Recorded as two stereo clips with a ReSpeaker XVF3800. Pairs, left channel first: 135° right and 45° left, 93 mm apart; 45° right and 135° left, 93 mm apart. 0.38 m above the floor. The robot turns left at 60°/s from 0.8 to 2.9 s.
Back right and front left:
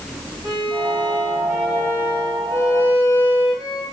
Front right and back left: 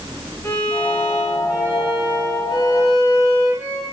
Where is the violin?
15° left, 3 m; by 3.8 s 110° right, 3 m.